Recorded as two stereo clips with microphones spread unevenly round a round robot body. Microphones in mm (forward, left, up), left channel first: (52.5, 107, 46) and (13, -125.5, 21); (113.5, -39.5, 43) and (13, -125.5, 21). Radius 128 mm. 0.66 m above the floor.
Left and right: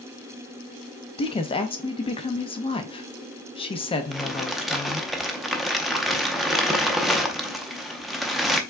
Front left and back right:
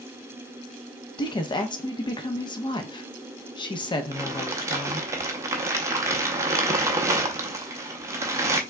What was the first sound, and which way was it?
A woman speaking, 30° left.